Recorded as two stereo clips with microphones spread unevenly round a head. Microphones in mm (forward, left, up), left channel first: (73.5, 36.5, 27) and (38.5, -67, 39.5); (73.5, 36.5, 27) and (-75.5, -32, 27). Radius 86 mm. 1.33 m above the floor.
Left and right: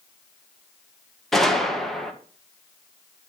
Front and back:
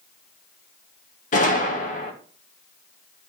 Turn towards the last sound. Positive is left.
turn(degrees=-15)